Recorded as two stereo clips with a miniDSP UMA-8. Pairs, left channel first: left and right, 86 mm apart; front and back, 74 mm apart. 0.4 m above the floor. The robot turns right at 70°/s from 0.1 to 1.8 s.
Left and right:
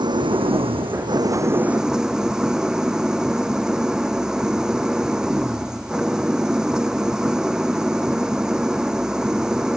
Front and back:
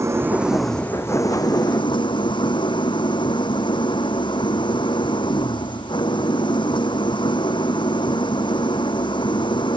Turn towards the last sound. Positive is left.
turn(degrees=-5)